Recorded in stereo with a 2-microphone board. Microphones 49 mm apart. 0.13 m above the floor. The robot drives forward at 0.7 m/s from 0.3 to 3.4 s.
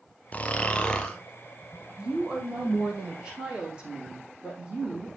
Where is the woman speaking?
25° right (ahead or behind), 4 m; by 5.1 s 20° right (ahead or behind), 5 m.